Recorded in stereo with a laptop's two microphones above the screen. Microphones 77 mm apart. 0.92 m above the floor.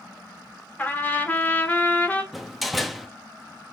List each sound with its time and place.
0.8 s a trumpet: 25° left (ahead or behind), 1.7 m
2.3 s a door slam: centre (ahead or behind), 0.6 m